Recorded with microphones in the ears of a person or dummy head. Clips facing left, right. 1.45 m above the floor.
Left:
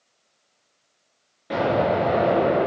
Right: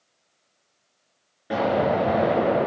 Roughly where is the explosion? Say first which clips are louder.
Left 1 dB; centre.